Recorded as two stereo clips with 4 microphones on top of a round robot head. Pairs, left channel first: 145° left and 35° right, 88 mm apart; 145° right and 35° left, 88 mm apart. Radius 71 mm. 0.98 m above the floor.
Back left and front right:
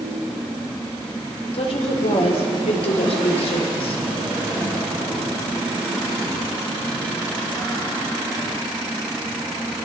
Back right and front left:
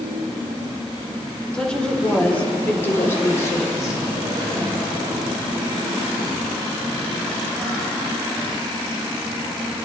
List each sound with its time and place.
1.5 s a woman speaking: 135° left, 4.5 m; by 4.0 s 160° left, 4 m